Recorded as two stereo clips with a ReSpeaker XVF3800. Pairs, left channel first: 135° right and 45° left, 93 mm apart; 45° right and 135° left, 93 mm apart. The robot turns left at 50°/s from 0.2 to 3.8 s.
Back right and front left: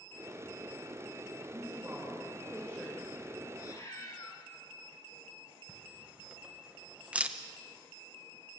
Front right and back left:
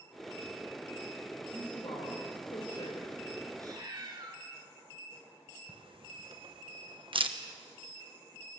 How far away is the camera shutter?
About 1.3 m.